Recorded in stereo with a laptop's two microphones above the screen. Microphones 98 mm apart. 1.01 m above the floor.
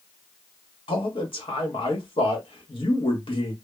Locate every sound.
0.9 s a man speaking: 60° left (ahead or behind), 1.2 m